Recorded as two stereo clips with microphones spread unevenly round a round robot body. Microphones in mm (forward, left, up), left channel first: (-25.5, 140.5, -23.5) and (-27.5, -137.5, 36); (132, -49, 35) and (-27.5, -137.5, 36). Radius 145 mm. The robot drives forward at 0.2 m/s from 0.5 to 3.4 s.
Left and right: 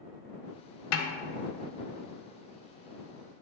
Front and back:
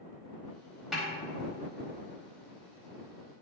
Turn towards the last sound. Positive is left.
turn(degrees=140)